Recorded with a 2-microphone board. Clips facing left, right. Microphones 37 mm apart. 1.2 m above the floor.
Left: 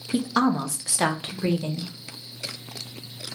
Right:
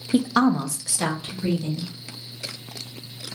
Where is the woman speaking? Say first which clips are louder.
Right 3 dB; 25° right (ahead or behind), 0.5 m; by 1.9 s 60° left (ahead or behind), 1.0 m.